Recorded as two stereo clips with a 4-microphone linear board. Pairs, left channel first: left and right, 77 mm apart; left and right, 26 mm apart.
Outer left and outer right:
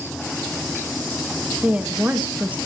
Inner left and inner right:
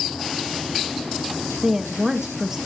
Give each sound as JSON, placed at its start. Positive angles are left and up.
{"t": 1.6, "sound": "a woman speaking", "side_deg": -20, "distance_m": 1.4}